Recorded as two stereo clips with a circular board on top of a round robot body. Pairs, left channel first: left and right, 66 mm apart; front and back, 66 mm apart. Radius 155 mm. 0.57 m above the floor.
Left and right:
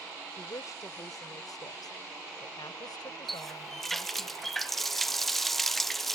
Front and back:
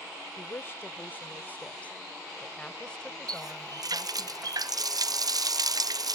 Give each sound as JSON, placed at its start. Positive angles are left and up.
{"t": 0.4, "sound": "a woman speaking", "azimuth_deg": 50}
{"t": 3.3, "sound": "a running tap", "azimuth_deg": 175}